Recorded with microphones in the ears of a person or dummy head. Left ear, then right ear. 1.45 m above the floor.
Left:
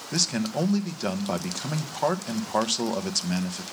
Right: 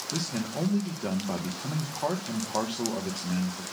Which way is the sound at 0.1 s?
70° left (ahead or behind).